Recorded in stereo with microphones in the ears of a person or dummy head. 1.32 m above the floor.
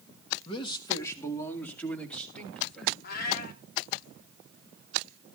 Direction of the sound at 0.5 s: 30° left (ahead or behind).